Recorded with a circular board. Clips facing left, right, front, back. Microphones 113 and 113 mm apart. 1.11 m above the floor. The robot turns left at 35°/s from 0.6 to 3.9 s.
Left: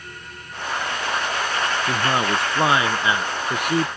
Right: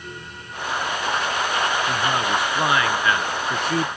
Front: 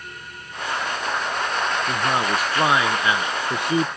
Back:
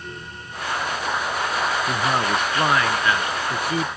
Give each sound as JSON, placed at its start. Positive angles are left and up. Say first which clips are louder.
{"t": 1.9, "sound": "a man speaking", "louder": "left 1 dB, even", "azimuth_deg": 90}